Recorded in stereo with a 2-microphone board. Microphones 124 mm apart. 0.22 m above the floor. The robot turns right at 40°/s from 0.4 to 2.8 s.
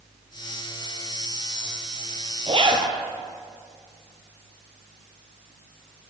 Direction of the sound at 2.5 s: 50° right (ahead or behind).